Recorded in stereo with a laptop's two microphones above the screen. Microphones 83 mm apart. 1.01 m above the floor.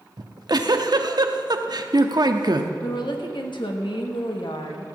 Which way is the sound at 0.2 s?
55° right (ahead or behind).